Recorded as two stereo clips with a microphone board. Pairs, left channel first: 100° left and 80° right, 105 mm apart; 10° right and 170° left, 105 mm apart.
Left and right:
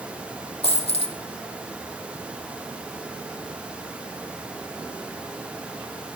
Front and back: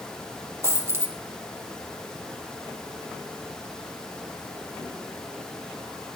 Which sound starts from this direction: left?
A dropped coin, at 0.6 s.